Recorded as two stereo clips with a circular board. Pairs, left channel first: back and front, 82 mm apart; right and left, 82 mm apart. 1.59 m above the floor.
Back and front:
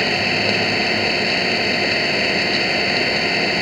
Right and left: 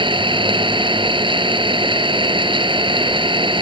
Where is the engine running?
90° left.